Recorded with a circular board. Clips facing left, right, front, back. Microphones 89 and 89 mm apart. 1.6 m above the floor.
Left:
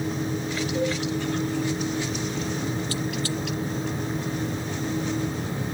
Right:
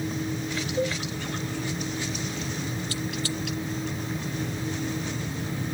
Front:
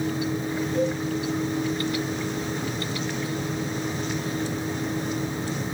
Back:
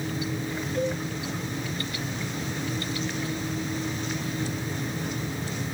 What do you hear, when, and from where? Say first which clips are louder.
0.8 s a cowbell: left 1 dB, front 3 dB; 75° left, 5.5 m